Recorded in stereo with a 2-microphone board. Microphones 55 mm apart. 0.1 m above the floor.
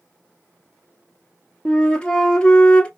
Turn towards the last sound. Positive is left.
turn(degrees=15)  # may be behind; listen again after turning